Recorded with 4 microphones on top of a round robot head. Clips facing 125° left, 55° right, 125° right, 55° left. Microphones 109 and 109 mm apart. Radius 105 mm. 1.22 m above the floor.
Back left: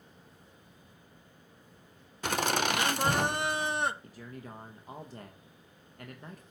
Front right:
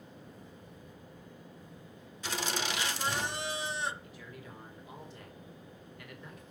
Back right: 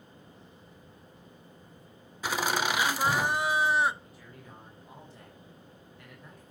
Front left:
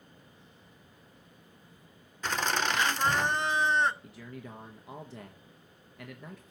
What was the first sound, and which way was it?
Laughter, 150° left.